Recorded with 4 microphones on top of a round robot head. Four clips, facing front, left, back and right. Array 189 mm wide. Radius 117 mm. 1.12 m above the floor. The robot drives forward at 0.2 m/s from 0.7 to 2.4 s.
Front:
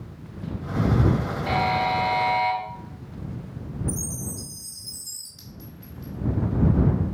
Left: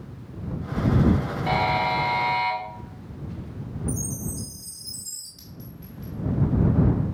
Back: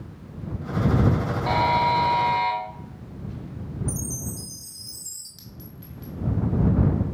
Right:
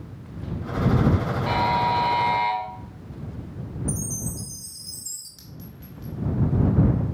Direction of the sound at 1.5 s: 150° left.